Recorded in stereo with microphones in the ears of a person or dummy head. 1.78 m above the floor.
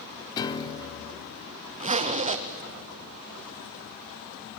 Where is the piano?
25° left (ahead or behind), 1.2 m.